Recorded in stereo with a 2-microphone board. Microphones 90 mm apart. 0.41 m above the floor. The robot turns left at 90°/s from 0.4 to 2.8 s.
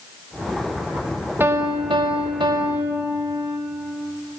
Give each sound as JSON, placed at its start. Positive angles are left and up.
{"t": 1.4, "sound": "a piano", "azimuth_deg": -25, "distance_m": 0.5}